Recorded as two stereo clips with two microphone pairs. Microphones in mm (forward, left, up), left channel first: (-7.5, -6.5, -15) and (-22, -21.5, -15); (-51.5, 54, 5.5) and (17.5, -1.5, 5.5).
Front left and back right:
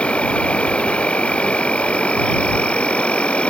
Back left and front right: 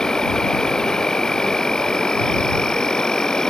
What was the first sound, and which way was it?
An insect, 60° left.